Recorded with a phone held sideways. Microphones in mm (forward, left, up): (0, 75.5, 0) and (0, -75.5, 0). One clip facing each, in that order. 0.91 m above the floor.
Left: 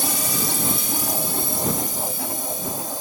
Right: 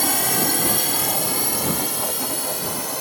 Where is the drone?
60° right (ahead or behind); by 3.0 s 65° right (ahead or behind).